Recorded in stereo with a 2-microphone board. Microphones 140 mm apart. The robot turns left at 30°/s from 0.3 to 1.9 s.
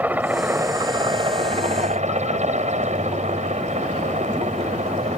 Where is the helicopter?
15° right; by 5.2 s 60° right.